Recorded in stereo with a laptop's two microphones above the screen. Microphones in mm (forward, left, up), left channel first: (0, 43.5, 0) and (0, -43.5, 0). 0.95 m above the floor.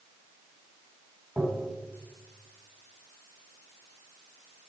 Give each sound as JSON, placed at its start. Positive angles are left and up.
{"t": 1.4, "sound": "tapping", "side_deg": -15, "distance_m": 1.0}